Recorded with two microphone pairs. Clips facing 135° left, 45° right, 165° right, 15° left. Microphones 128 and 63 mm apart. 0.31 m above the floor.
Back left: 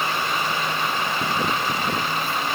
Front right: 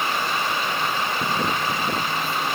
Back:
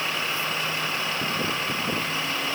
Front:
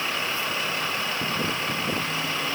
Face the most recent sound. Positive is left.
No sound to turn to.